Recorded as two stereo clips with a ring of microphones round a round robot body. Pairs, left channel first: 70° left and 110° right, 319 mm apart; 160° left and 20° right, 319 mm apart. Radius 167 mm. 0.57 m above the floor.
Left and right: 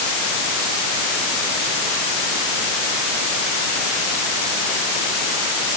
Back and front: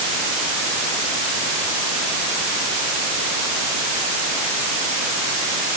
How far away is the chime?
No chime in this recording.